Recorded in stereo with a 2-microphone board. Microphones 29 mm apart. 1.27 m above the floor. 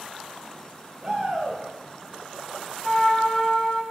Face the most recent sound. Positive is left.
turn(degrees=15)  # may be behind; listen again after turning